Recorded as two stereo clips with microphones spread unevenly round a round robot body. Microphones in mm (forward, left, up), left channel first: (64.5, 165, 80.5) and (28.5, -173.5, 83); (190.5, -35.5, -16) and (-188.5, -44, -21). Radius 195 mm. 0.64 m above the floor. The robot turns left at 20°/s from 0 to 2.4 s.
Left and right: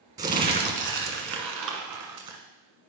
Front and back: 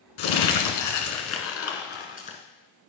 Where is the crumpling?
30° right, 1.7 m; by 2.4 s 70° right, 1.7 m.